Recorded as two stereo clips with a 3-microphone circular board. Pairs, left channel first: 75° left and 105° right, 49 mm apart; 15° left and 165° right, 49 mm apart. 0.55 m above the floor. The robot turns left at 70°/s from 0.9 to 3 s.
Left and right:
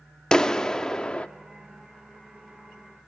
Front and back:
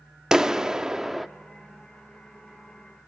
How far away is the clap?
About 0.6 m.